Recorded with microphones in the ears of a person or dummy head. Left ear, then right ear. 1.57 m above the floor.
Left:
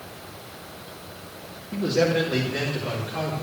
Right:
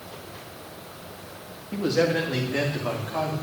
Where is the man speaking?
25° right (ahead or behind), 2 m.